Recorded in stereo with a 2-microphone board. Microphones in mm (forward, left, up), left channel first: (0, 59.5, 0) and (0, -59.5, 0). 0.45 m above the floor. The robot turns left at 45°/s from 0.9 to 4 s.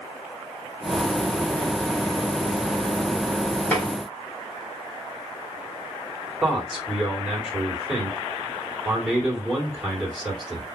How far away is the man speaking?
About 1.6 m.